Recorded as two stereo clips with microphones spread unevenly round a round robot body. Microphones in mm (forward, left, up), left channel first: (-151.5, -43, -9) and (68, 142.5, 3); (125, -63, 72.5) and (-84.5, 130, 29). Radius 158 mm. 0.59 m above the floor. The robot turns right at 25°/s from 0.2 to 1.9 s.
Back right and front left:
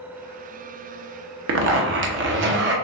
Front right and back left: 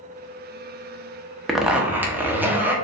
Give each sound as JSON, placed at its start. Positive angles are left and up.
{"t": 1.5, "sound": "a zipper", "azimuth_deg": 55, "distance_m": 0.7}